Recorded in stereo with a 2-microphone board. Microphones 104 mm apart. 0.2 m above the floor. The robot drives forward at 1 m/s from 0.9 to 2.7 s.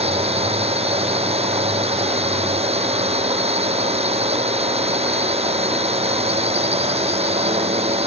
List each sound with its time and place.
0.0 s a drone: 80° right